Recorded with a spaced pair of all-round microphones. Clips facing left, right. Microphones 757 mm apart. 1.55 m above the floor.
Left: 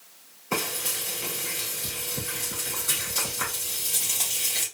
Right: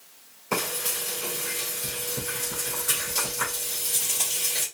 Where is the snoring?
No snoring in this recording.